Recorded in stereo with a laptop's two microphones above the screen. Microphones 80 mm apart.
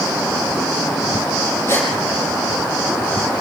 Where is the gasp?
30° left (ahead or behind), 7.5 m.